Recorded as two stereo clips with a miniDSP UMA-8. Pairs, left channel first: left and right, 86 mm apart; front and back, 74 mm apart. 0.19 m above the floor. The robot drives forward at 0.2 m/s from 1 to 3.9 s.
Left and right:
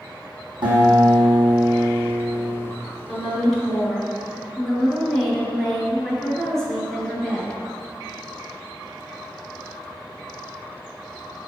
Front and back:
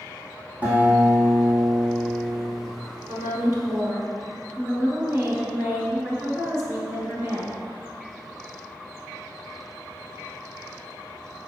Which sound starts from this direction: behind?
A woman speaking, at 3.1 s.